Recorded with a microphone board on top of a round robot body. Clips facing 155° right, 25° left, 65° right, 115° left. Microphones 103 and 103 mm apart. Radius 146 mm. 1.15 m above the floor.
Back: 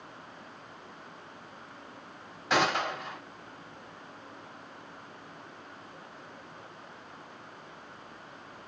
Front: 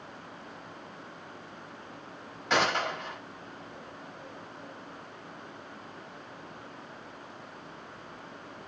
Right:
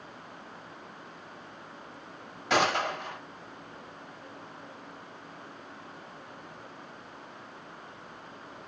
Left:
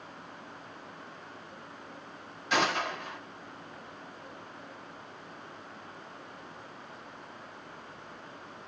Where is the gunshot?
70° right, 3 m.